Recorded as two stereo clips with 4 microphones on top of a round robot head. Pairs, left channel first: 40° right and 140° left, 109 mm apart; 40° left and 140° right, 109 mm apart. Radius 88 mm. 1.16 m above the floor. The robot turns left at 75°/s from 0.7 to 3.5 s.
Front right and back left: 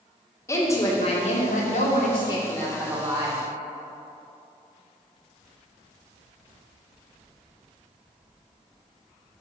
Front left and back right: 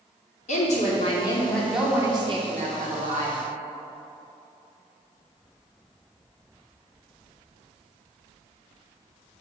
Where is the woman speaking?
25° left, 2.5 m; by 3.4 s straight behind, 2.5 m.